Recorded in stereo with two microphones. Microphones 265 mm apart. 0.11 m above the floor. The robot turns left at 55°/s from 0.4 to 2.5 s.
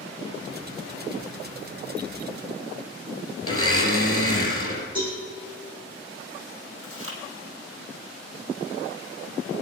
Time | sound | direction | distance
3.4 | a blender | 50° left (ahead or behind) | 3 m
5.0 | a cowbell | 20° right (ahead or behind) | 7.5 m
6.8 | chewing | 55° right (ahead or behind) | 3.5 m